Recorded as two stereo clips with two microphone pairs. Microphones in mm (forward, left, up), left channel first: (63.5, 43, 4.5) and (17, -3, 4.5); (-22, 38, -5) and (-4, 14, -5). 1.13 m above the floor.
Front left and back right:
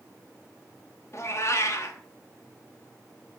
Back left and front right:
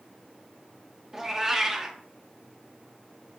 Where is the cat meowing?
20° left, 0.8 m.